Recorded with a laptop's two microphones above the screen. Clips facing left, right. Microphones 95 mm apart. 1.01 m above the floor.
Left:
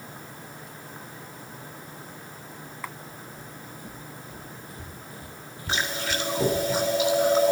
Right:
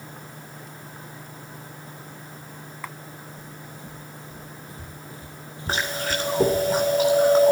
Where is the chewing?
50° right (ahead or behind), 4 m.